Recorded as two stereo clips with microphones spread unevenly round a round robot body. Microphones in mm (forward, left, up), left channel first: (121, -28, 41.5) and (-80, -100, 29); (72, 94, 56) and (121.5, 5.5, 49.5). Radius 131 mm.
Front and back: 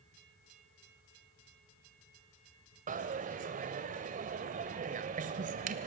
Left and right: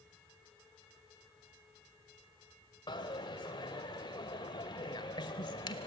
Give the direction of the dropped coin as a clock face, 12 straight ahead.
7 o'clock.